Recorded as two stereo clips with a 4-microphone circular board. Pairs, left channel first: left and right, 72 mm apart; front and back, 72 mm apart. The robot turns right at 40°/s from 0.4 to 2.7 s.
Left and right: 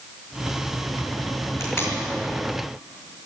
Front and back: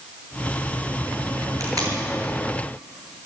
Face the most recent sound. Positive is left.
turn(degrees=-175)